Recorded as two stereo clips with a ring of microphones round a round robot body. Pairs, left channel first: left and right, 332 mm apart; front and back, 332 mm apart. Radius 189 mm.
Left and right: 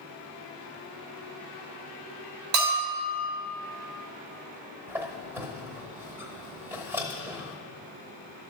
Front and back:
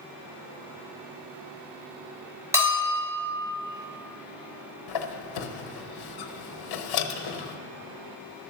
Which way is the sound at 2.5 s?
100° right.